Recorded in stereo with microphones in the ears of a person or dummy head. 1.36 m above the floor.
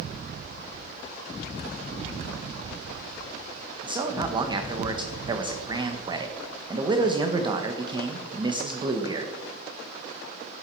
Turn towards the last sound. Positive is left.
turn(degrees=-30)  # may be behind; listen again after turning